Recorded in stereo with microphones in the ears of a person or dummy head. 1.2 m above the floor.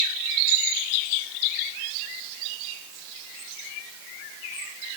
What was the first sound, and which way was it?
Only background noise.